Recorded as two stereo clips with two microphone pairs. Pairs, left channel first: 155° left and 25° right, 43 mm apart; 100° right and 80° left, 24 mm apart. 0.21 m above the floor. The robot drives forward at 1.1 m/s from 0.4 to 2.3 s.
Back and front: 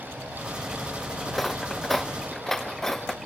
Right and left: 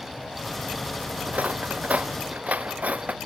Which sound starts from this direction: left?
Cutlery clinking, at 1.3 s.